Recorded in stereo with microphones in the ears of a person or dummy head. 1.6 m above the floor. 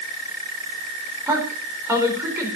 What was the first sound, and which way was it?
A woman speaking, 5° right (ahead or behind).